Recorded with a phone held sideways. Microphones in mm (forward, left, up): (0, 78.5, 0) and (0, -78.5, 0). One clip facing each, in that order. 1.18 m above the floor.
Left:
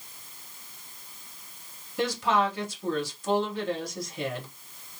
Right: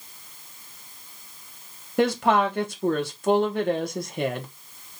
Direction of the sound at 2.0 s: 60° right (ahead or behind).